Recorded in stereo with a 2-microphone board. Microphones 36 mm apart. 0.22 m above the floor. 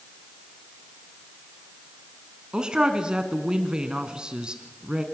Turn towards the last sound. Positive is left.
turn(degrees=-25)  # may be behind; listen again after turning